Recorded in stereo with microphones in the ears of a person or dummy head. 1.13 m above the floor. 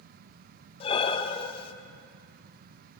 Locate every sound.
0.8 s breathing: 30° left (ahead or behind), 0.7 m